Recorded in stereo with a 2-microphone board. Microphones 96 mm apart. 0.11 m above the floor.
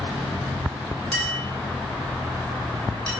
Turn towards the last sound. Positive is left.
turn(degrees=10)  # may be behind; listen again after turning